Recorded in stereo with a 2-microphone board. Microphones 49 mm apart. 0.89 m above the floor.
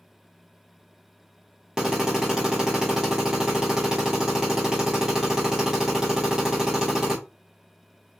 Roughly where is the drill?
Centre.